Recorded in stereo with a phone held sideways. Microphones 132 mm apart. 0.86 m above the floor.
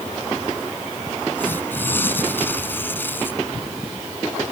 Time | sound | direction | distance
1.4 | tearing paper | 15° left (ahead or behind) | ?